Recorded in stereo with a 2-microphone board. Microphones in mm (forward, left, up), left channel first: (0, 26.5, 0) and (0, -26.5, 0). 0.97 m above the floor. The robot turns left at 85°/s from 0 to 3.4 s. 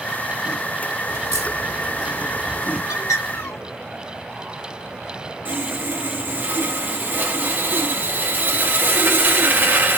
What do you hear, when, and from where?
1.1 s a crack: 85° right, 3.5 m; by 2.8 s 55° left (ahead or behind), 3.5 m
2.9 s a bird: 110° left, 3 m; by 3.6 s 65° left, 3 m
5.5 s sawing: 35° right (ahead or behind), 1.3 m